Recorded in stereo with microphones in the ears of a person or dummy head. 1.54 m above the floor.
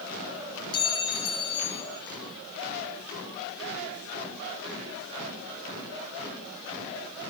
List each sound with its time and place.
0.7 s a clink: 30° left (ahead or behind), 0.9 m